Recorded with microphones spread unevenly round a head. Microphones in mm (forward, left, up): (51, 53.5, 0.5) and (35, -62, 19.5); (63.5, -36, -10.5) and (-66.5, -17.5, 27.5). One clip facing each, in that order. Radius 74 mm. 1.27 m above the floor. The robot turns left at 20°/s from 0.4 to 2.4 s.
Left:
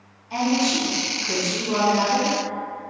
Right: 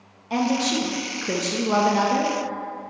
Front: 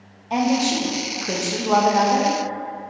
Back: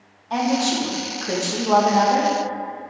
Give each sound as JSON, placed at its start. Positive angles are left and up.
{"t": 0.3, "sound": "a woman speaking", "azimuth_deg": -75, "distance_m": 1.5}